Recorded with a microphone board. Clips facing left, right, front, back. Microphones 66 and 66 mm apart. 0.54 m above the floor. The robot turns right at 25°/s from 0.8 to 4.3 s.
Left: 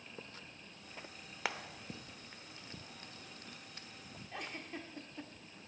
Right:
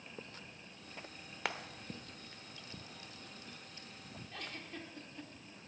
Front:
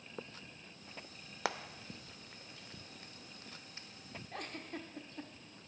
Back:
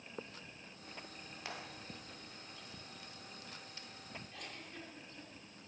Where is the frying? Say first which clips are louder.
Even, front 9 dB; straight ahead, 0.7 m; by 3.9 s 65° left, 0.7 m.